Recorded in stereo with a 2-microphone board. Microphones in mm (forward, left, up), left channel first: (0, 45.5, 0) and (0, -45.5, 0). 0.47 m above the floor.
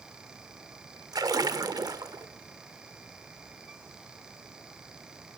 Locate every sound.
1.1 s a splash: 50° right (ahead or behind), 1.2 m